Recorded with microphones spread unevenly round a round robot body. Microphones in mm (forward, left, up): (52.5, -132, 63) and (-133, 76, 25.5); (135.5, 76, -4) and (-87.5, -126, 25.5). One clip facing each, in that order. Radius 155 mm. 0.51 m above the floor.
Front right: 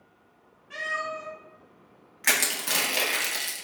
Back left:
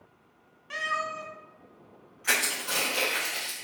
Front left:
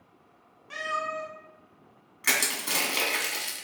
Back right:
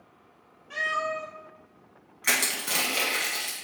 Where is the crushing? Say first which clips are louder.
Front right 2 dB, even; 40° right, 0.7 m.